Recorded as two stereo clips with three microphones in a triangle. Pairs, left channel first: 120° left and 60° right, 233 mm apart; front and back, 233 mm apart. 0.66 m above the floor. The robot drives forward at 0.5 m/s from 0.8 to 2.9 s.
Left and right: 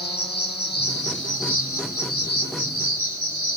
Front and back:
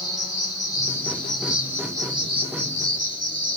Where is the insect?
75° left, 1.1 m; by 3.6 s 125° left, 1.3 m.